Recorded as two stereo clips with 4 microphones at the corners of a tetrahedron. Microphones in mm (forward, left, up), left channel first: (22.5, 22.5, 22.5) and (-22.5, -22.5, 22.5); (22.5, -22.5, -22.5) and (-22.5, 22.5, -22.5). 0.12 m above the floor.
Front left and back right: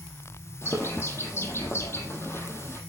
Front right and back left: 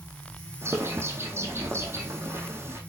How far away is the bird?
About 5 m.